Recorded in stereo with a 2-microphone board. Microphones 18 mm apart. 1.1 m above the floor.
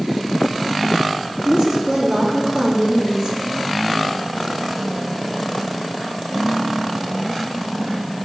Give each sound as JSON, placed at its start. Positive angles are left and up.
{"t": 1.4, "sound": "a woman speaking", "side_deg": -45, "distance_m": 0.8}